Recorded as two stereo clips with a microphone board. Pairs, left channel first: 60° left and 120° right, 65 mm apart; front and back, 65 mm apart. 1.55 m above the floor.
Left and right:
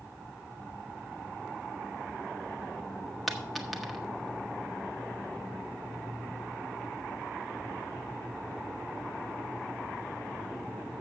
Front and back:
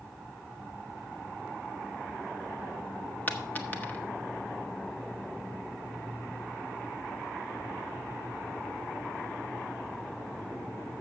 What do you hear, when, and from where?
3.3 s a dropped coin: 30° right, 1.0 m